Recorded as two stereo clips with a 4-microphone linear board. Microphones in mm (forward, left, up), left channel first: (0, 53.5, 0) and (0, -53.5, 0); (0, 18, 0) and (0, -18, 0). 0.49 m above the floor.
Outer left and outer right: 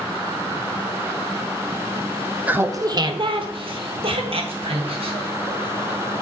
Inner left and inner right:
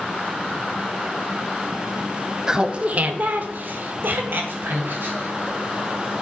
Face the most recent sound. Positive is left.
turn(degrees=-70)  # may be behind; listen again after turning